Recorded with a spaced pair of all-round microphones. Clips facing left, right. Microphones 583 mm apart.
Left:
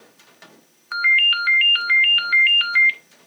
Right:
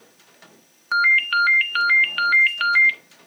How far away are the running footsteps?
I don't hear running footsteps.